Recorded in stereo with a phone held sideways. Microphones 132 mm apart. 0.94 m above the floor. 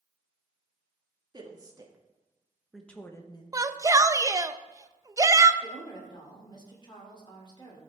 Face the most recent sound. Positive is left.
turn(degrees=30)  # may be behind; listen again after turning